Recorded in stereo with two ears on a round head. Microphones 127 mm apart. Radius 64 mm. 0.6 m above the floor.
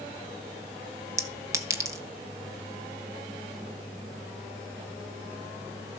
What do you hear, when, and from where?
1.2 s a clink: 25° right (ahead or behind), 1.6 m